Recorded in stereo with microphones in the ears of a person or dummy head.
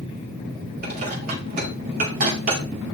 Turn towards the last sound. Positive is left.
turn(degrees=-50)  # may be behind; listen again after turning